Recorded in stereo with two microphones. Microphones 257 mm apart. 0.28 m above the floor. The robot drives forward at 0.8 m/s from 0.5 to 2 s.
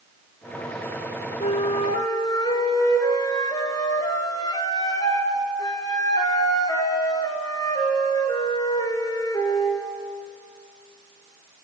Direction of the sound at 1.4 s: 30° left (ahead or behind).